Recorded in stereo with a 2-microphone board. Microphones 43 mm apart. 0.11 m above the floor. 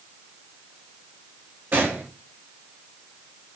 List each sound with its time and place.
1.7 s a gunshot: 55° right (ahead or behind), 3.5 m